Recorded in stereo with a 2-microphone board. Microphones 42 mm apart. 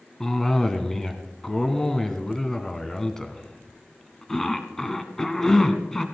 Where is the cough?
10° left (ahead or behind), 1.6 m.